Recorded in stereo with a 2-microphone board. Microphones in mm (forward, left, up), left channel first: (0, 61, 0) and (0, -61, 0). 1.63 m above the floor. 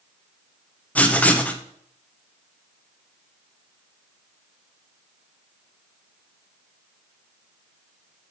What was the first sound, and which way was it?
Writing, 15° left (ahead or behind).